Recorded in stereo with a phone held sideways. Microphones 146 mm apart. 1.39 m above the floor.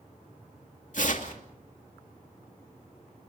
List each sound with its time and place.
0.9 s tearing paper: 60° left (ahead or behind), 2.5 m